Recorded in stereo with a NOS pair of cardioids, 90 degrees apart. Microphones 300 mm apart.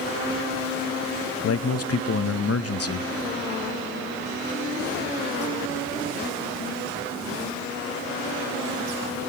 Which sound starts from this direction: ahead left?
A man speaking, at 1.4 s.